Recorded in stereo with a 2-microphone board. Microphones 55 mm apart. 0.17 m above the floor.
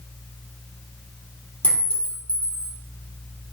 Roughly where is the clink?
Left.